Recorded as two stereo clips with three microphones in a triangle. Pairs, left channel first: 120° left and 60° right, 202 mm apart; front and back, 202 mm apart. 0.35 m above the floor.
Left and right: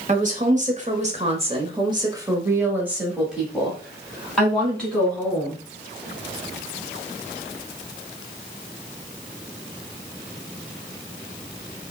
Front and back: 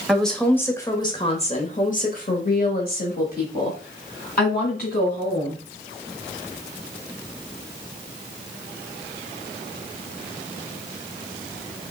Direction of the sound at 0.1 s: 90° right.